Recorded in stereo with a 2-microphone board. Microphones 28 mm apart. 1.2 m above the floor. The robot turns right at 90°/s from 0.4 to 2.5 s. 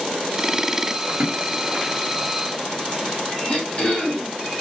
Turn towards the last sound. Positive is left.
turn(degrees=50)  # may be behind; listen again after turning